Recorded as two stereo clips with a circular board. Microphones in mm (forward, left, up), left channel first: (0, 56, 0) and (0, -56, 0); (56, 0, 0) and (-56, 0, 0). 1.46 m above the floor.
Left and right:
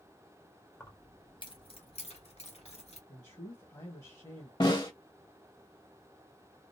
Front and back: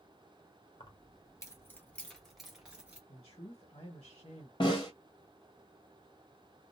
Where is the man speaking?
35° left, 1.3 m.